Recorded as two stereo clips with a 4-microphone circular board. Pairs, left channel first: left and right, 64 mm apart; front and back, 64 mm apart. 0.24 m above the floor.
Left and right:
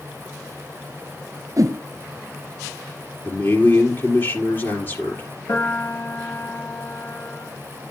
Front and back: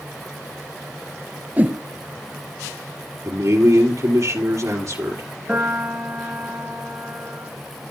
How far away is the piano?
About 3.5 m.